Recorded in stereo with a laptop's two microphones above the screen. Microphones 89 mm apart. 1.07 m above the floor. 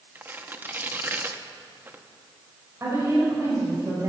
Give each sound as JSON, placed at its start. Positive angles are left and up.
{"t": 0.1, "sound": "tearing paper", "side_deg": -25, "distance_m": 0.9}
{"t": 2.8, "sound": "a woman speaking", "side_deg": -35, "distance_m": 4.5}